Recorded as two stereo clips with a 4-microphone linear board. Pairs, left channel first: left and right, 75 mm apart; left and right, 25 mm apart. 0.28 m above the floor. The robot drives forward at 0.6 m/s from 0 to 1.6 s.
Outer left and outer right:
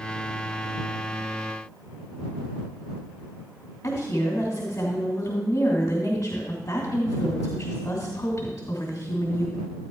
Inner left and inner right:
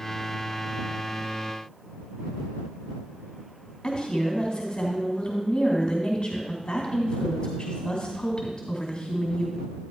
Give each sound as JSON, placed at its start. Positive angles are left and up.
{"t": 3.8, "sound": "a woman speaking", "side_deg": 30, "distance_m": 2.5}